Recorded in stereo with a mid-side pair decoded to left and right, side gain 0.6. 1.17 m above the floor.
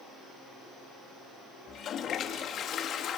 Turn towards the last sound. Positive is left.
turn(degrees=50)